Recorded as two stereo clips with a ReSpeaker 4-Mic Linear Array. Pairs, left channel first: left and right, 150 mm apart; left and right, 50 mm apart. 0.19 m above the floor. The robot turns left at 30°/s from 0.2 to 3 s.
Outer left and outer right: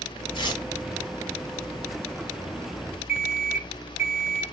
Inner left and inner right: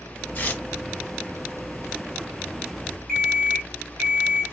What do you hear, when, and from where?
0.3 s tearing paper: 35° left (ahead or behind), 0.9 m; by 0.6 s 30° left (ahead or behind), 0.9 m
3.1 s an alarm clock: 5° right (ahead or behind), 1.7 m